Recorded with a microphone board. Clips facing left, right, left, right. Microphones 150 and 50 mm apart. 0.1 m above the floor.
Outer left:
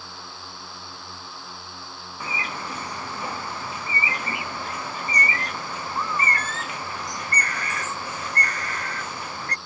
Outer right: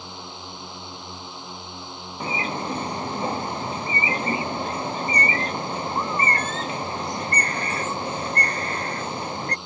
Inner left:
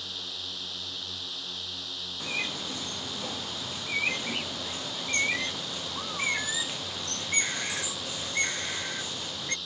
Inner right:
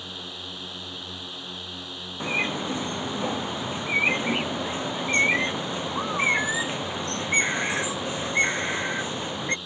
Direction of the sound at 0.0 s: 20° right (ahead or behind).